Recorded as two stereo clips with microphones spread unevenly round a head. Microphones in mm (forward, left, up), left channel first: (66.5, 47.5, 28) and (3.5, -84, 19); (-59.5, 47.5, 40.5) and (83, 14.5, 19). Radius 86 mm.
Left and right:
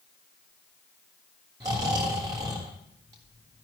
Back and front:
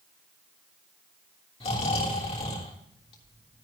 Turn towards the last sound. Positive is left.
turn(degrees=180)